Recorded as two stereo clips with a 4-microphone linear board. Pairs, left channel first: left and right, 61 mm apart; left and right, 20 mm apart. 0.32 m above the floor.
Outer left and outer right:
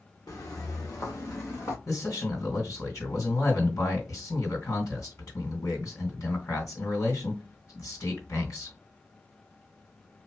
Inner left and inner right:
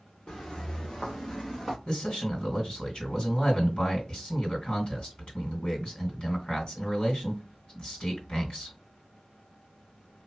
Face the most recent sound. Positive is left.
turn(degrees=65)  # may be behind; listen again after turning